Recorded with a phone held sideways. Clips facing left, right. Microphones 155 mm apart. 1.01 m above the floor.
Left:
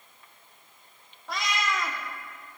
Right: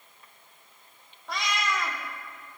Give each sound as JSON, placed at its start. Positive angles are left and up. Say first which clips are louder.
{"t": 1.3, "sound": "a cat meowing", "louder": "even", "side_deg": 0, "distance_m": 1.2}